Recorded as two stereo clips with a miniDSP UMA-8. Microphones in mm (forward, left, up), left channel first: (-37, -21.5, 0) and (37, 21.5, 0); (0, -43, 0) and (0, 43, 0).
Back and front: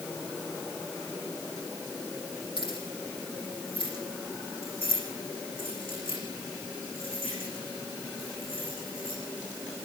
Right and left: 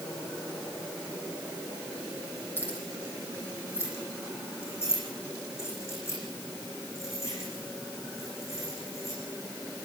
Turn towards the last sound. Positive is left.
turn(degrees=-145)